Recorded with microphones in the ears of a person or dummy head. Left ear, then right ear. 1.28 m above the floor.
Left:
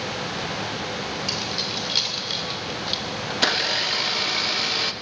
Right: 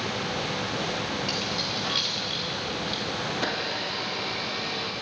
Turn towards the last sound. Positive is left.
turn(degrees=55)  # may be behind; listen again after turning